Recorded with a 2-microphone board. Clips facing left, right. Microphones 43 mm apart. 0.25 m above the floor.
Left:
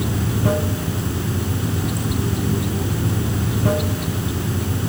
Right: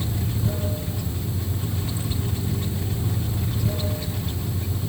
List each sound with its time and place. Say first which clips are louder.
0.0 s running water: left 7 dB; 65° left (ahead or behind), 3 m